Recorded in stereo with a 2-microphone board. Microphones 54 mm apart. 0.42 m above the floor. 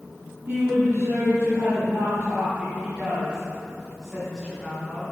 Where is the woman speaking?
60° right (ahead or behind), 3 m; by 5.0 s 5° left (ahead or behind), 4 m.